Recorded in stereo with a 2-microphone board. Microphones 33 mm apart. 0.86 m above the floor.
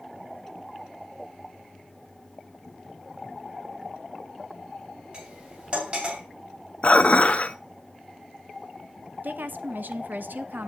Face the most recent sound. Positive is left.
turn(degrees=-70)  # may be behind; listen again after turning